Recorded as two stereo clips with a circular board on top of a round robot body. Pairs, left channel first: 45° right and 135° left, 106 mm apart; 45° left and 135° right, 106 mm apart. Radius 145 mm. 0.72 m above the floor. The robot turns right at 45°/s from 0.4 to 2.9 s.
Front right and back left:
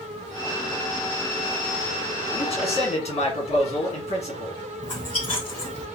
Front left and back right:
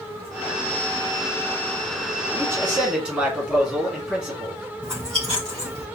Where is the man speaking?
80° right, 1.9 m; by 4.6 s 55° right, 1.9 m.